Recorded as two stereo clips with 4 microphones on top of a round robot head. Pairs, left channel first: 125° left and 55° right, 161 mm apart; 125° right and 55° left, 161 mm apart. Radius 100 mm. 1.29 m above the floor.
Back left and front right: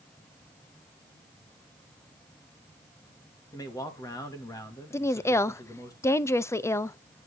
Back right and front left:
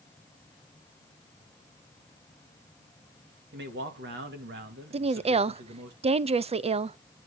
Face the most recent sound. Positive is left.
turn(degrees=60)